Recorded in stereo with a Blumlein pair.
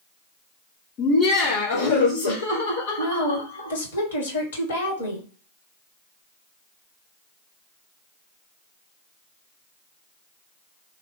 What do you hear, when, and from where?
1.0 s laughter: 35° left, 0.8 m; by 3.8 s 80° left, 1.9 m
3.0 s a woman speaking: 65° left, 1.3 m